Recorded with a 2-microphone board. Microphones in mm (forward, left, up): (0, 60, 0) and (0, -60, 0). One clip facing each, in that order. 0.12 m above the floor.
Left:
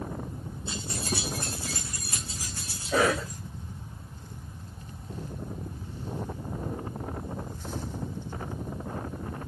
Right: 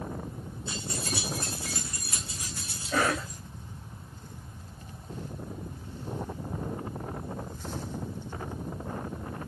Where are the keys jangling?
25° left (ahead or behind), 4 m; by 3.4 s 35° left (ahead or behind), 6 m.